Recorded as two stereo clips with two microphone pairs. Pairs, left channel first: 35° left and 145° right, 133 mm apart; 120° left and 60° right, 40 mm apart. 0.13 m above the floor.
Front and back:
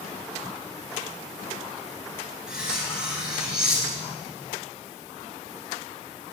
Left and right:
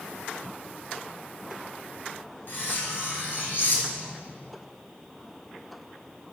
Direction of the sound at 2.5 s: 130° left.